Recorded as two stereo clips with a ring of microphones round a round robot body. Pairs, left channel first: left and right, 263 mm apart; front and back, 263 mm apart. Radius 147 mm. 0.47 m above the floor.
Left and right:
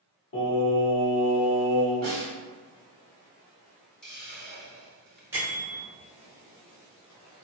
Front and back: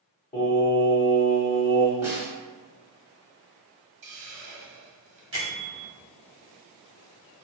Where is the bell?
170° right, 1.3 m.